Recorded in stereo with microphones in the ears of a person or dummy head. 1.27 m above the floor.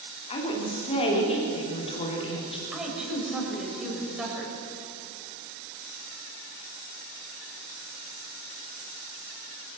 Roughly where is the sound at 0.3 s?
Left.